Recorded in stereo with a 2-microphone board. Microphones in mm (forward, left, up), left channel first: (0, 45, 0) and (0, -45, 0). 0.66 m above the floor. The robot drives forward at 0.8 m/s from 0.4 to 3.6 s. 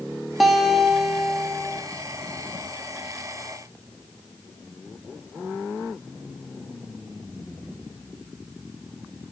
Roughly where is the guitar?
Centre.